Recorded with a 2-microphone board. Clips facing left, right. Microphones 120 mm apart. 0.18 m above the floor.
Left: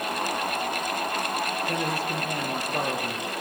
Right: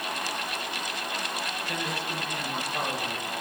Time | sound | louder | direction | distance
1.7 | a man speaking | left 5 dB | 45° left (ahead or behind) | 5.5 m